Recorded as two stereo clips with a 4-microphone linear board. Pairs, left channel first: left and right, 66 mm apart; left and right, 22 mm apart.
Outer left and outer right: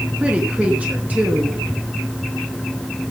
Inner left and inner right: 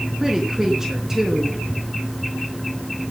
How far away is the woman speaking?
About 3.5 m.